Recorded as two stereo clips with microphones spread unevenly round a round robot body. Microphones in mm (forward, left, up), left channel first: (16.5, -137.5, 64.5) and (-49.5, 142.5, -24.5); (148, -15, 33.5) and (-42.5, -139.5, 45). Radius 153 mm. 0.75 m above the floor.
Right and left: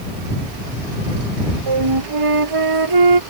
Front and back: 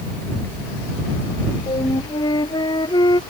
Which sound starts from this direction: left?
A flute, at 1.7 s.